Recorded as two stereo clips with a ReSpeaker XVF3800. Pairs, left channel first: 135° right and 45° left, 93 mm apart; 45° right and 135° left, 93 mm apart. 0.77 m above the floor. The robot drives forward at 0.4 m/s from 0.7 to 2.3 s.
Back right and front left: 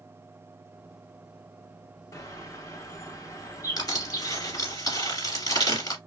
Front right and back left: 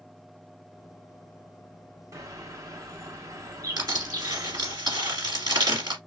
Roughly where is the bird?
Behind.